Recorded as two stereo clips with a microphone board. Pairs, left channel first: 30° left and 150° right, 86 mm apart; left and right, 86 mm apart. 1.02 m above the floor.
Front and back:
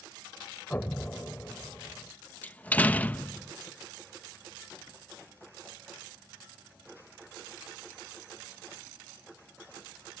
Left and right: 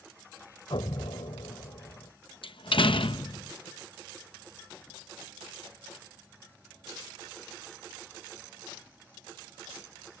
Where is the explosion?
100° left.